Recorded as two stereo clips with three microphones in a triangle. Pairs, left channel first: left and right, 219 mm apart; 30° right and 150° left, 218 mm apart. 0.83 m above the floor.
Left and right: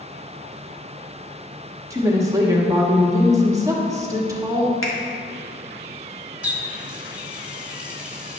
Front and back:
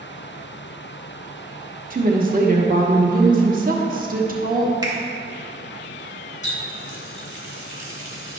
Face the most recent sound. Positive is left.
turn(degrees=-5)